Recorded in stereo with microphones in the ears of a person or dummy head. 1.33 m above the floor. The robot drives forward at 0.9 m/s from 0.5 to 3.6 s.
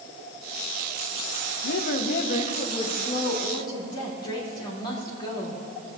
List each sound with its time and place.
1.6 s a woman speaking: 70° left (ahead or behind), 1.1 m; by 5.6 s 25° left (ahead or behind), 2.5 m